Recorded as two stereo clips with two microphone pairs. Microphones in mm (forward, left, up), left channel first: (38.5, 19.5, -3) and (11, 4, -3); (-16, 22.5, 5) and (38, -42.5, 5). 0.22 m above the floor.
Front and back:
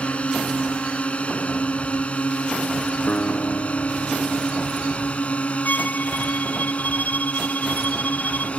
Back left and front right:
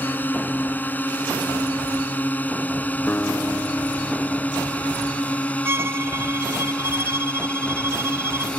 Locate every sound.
0.0 s a drone: 65° left; by 8.6 s 60° left
3.1 s a guitar: 65° left
5.7 s a violin: 10° left